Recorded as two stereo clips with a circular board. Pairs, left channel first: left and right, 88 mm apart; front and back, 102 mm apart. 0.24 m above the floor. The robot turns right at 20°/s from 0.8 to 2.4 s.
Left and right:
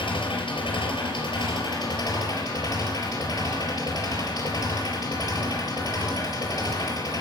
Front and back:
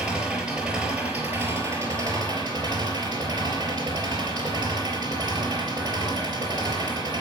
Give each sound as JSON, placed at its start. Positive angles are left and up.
{"t": 0.0, "sound": "an engine running", "azimuth_deg": 100, "distance_m": 4.0}